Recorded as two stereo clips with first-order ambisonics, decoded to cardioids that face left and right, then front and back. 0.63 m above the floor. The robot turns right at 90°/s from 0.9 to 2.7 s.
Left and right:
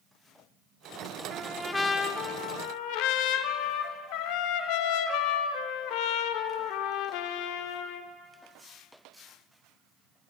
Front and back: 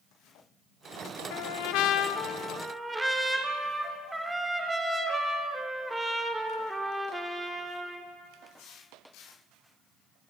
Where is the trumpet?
30° right, 0.9 m; by 8.1 s 100° left, 0.9 m.